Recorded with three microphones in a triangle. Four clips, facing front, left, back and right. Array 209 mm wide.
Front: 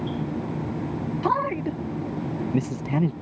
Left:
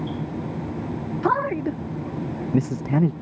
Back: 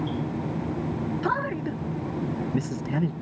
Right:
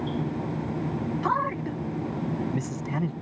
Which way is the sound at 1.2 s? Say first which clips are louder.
Left 6 dB, front 5 dB; 75° left.